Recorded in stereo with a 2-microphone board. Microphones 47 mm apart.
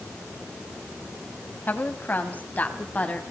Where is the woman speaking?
40° left (ahead or behind), 3.5 m; by 3.2 s 30° left (ahead or behind), 4 m.